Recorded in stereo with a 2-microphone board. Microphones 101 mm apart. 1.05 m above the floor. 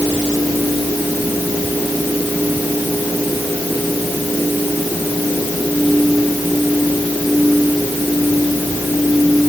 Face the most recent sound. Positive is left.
No sound to turn to.